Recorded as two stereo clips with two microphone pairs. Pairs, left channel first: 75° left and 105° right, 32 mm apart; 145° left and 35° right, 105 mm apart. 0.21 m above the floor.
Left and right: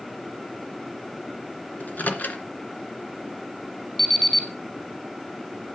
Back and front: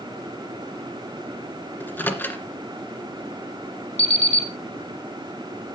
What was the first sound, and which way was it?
A microwave, 80° left.